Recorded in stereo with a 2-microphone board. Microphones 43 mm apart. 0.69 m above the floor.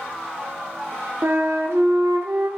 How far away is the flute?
About 0.6 m.